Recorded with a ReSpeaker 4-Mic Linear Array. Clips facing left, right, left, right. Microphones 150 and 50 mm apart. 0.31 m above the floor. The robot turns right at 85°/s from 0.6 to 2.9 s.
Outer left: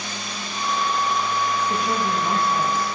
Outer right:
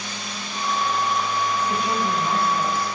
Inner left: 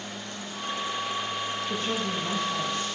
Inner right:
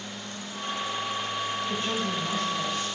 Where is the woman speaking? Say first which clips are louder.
Even, even; 40° right, 3 m; by 2.9 s 60° left, 3 m.